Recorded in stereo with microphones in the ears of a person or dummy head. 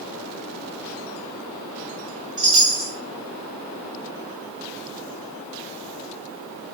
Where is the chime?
30° right (ahead or behind), 1.5 m.